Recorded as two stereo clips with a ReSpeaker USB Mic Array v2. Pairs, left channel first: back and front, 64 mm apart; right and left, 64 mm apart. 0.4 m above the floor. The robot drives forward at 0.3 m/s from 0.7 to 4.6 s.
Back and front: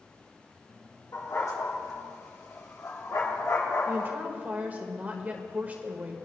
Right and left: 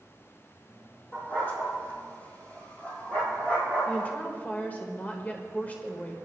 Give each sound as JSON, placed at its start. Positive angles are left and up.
{"t": 1.1, "sound": "a dog barking", "azimuth_deg": -150, "distance_m": 5.5}
{"t": 3.9, "sound": "a woman speaking", "azimuth_deg": -35, "distance_m": 1.4}